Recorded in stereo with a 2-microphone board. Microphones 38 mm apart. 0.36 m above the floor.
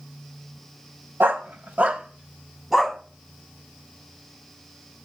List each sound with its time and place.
1.2 s a dog barking: 75° right (ahead or behind), 0.8 m; by 3.0 s centre (ahead or behind), 1.1 m